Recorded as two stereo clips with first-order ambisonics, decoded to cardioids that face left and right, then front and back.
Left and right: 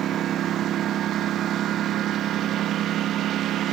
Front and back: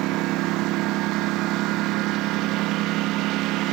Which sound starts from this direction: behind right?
A lawn mower, at 0.0 s.